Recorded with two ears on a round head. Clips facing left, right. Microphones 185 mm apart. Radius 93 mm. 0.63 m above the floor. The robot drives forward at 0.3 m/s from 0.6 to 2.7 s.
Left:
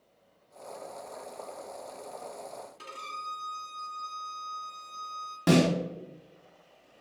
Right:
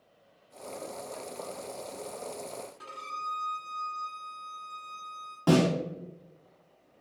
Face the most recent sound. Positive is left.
turn(degrees=25)  # may be behind; listen again after turning